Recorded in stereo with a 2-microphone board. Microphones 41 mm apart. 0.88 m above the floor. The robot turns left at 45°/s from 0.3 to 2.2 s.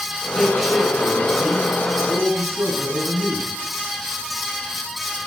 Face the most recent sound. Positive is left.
turn(degrees=-80)